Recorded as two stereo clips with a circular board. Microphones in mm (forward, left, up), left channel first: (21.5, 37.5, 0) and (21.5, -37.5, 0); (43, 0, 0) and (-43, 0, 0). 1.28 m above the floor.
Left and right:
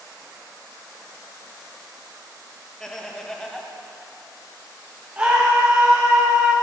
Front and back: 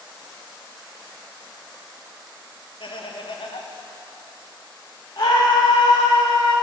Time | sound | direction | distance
2.8 | laughter | 5° left | 0.7 m
5.2 | a scream | 20° right | 0.7 m